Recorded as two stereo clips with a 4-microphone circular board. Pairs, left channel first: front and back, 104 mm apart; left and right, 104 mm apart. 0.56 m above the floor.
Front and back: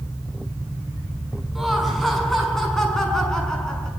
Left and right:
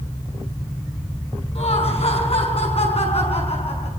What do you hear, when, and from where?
1.6 s laughter: 90° left, 7 m; by 3.9 s 80° left, 7.5 m